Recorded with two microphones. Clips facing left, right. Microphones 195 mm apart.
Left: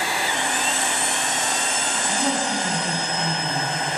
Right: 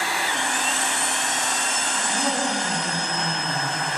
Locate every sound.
1.9 s a woman speaking: 10° left (ahead or behind), 2.5 m